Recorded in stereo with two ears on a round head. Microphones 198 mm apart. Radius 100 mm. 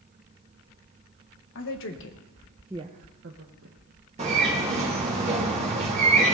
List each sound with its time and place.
1.6 s a woman speaking: 65° left (ahead or behind), 1.7 m; by 3.8 s 55° right (ahead or behind), 1.8 m
4.2 s a bird: 30° right (ahead or behind), 2.5 m